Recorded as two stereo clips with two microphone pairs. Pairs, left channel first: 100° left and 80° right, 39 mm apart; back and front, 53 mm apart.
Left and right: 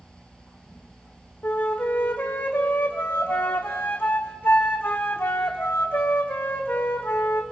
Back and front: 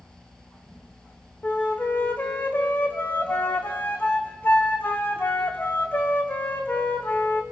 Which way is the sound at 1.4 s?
130° left.